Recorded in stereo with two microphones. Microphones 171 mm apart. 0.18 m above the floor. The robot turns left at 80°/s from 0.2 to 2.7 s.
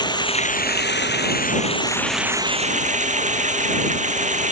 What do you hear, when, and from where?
0.0 s running water: 155° left; by 4.5 s 45° right